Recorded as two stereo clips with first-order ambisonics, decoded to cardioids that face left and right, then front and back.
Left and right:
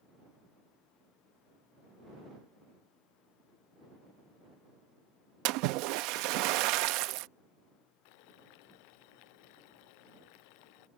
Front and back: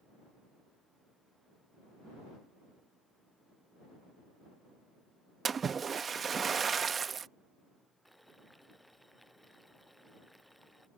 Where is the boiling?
90° left.